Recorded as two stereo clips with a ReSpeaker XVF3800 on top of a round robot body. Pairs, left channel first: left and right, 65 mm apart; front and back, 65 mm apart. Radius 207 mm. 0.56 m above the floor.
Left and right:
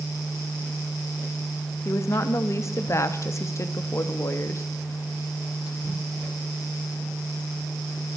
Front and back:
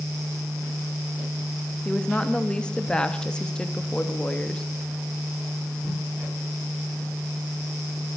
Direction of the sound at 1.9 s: 75° left.